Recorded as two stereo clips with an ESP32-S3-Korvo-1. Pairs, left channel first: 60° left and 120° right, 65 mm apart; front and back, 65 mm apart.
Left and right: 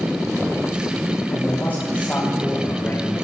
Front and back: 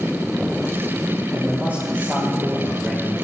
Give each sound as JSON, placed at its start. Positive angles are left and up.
{"t": 1.3, "sound": "a man speaking", "azimuth_deg": 120, "distance_m": 3.5}